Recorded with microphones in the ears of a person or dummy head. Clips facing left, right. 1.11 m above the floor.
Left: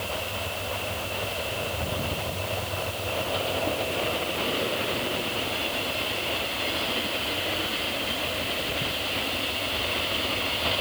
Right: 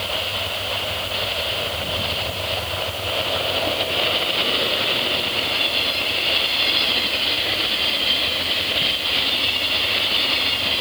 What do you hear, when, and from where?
Only background noise.